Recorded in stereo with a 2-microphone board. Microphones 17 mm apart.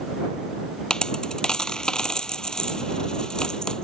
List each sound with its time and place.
0.9 s a dropped coin: 55° left (ahead or behind)